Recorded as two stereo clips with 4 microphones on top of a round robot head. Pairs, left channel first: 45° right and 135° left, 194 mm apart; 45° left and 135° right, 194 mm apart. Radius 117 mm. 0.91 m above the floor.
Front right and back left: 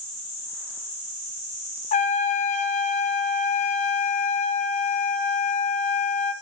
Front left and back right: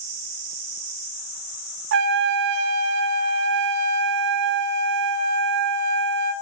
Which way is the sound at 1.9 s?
105° right.